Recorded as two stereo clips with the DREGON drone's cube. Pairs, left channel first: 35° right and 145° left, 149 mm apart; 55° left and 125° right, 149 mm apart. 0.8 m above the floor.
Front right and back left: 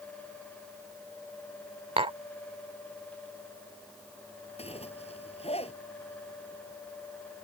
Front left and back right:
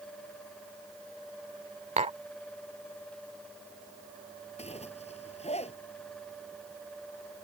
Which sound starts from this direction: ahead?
A zipper, at 4.6 s.